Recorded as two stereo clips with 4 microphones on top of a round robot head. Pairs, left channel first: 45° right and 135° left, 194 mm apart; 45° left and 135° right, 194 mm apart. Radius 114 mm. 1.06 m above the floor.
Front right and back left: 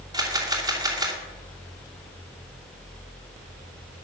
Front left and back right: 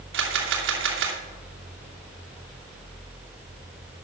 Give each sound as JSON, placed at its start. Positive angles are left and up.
{"t": 0.1, "sound": "a camera shutter", "azimuth_deg": -155, "distance_m": 2.5}